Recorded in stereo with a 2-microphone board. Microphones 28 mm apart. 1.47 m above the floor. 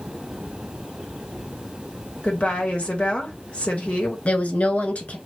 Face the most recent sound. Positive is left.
turn(degrees=55)  # may be behind; listen again after turning